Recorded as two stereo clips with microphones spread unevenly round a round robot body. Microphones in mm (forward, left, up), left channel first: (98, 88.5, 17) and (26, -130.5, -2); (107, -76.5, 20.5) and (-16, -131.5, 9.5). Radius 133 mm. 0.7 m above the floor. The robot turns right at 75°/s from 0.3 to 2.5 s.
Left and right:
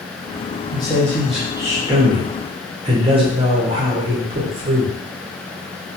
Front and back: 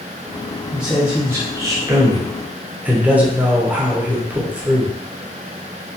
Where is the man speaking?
125° left, 0.6 m; by 5.0 s 100° right, 0.6 m.